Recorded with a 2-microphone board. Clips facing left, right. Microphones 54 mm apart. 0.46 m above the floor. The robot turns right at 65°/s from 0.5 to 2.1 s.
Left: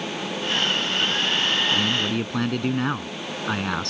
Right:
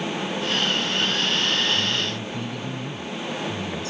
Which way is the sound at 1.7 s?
75° left (ahead or behind).